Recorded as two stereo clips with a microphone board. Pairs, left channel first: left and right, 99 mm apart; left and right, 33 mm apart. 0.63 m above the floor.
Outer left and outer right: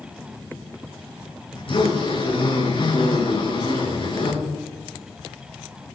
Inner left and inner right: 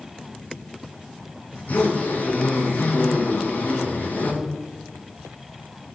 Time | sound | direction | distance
1.5 | a zipper | 65° left (ahead or behind) | 8 m